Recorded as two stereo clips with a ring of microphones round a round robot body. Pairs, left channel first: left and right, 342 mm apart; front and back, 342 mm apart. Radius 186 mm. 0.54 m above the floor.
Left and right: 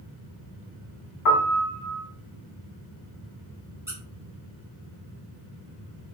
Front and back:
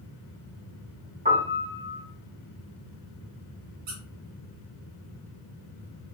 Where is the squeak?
175° right, 1.2 m.